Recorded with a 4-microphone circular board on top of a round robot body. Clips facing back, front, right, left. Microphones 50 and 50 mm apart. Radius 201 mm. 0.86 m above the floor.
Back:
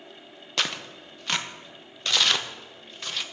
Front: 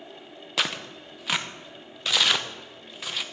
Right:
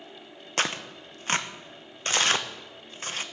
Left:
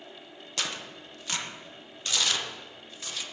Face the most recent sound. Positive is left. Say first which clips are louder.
# front 1 dB, right 6 dB
turn(degrees=-80)